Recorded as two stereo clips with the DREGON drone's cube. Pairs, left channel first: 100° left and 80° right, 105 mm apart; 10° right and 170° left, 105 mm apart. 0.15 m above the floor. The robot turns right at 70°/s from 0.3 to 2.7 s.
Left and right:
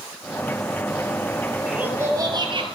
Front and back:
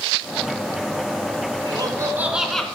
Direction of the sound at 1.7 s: 160° right.